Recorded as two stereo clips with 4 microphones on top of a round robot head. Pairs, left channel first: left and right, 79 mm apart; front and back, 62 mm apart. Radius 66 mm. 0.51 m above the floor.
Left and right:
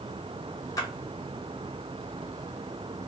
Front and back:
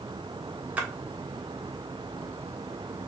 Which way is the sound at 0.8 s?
120° left.